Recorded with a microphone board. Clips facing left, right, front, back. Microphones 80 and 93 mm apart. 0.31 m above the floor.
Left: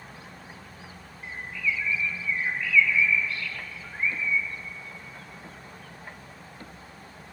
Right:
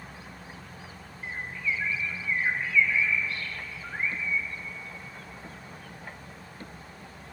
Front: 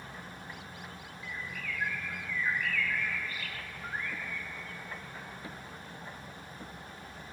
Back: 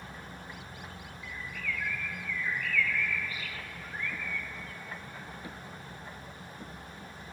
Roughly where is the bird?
Ahead right.